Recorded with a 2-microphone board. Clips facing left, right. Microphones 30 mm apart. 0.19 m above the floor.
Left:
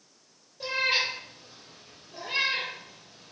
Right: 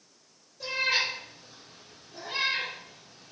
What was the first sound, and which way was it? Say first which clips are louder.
A cat meowing: left 1 dB; 30° left (ahead or behind).